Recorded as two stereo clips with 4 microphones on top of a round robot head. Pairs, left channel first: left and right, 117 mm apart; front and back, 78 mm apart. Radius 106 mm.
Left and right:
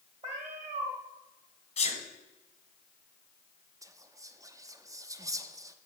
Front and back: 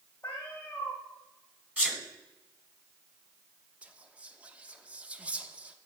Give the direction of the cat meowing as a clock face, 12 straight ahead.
2 o'clock.